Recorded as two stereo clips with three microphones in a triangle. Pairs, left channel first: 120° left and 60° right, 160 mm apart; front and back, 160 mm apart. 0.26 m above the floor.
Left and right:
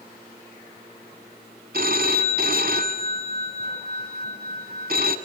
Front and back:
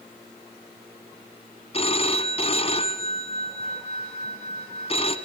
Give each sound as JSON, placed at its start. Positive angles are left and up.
{"t": 1.7, "sound": "a phone ringing", "azimuth_deg": -50, "distance_m": 1.2}